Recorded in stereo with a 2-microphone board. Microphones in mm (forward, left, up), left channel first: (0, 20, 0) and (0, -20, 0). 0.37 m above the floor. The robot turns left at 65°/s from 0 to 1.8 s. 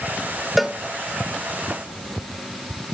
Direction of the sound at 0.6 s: 5° right (ahead or behind).